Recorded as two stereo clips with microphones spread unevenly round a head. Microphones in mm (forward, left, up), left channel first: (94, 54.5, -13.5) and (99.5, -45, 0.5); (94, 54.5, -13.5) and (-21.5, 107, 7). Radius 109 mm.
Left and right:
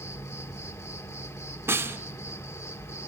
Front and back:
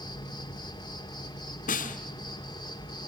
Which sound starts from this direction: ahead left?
An insect, at 0.0 s.